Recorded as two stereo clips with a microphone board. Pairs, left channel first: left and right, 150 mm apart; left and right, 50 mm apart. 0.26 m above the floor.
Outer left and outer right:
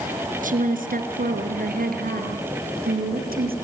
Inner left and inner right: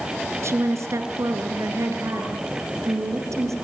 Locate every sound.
0.4 s a woman speaking: 60° right (ahead or behind), 3.5 m; by 3.5 s 75° right (ahead or behind), 6.5 m